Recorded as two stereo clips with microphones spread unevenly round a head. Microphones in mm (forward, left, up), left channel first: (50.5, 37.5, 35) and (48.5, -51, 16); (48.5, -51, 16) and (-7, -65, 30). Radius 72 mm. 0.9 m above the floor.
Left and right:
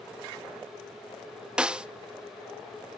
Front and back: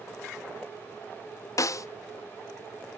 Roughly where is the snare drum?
Ahead.